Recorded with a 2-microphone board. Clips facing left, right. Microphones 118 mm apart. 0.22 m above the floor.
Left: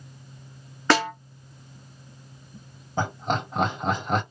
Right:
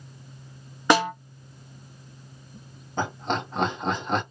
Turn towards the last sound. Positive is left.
turn(degrees=10)  # may be behind; listen again after turning